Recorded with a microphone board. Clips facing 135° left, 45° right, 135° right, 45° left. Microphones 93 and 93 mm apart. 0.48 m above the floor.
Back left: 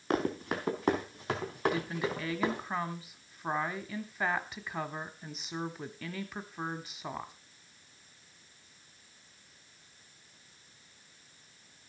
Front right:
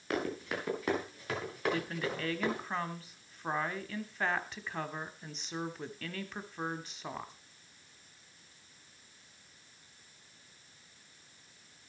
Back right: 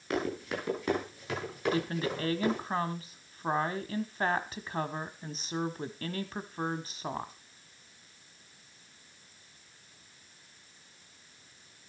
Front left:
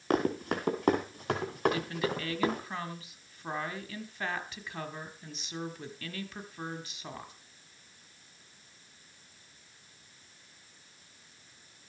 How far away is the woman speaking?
About 1.1 m.